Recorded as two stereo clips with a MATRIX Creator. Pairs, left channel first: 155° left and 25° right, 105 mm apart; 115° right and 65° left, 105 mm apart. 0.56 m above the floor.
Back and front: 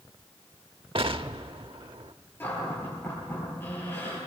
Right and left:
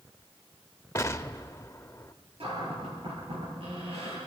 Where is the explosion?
50° right, 0.8 m.